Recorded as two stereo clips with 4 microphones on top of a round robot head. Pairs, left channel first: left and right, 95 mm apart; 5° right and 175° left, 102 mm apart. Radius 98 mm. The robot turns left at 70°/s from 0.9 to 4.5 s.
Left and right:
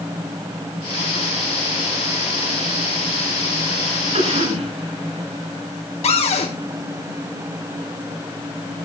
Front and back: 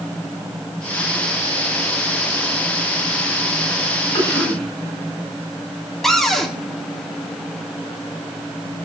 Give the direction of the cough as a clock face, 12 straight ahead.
2 o'clock.